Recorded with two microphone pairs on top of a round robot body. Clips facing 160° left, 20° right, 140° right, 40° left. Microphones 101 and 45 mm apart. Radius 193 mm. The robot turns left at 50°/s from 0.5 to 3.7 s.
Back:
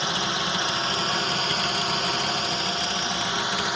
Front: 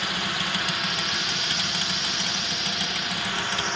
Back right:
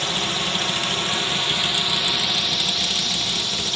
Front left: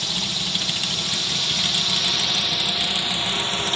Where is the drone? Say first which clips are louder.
Back 3 dB, back right 3 dB; 145° right; by 3.8 s 80° left.